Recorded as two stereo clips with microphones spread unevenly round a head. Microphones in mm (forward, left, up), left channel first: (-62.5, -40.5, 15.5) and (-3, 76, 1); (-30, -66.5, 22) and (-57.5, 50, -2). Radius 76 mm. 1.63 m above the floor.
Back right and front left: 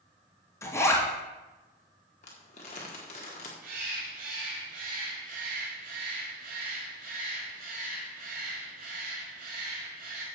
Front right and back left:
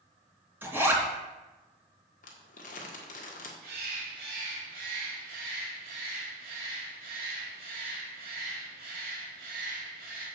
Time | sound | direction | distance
0.6 | a zipper | straight behind | 2.5 m
2.2 | crumpling | 70° right | 1.7 m
3.6 | a bird | 75° left | 2.5 m